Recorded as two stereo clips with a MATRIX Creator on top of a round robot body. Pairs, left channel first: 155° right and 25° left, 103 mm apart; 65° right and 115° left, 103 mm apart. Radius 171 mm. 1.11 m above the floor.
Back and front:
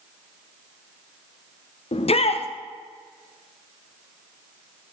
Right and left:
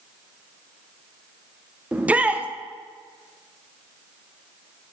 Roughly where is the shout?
Behind.